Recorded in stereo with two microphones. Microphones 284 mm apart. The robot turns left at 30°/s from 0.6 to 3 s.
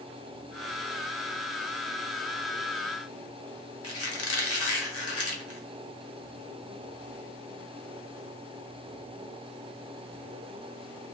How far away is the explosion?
I don't hear an explosion.